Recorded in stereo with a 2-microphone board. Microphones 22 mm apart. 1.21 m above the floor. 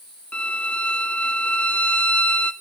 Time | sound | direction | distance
0.3 | a violin | 65° left (ahead or behind) | 0.6 m